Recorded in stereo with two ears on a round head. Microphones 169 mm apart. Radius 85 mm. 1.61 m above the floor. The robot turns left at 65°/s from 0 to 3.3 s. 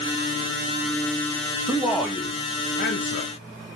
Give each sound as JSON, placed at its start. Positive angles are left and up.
{"t": 1.7, "sound": "a man speaking", "azimuth_deg": -165, "distance_m": 0.6}